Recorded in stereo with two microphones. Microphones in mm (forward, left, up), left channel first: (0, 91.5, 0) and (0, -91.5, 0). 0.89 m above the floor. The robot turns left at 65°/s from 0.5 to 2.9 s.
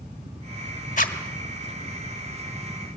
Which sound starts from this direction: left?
A zipper, at 1.0 s.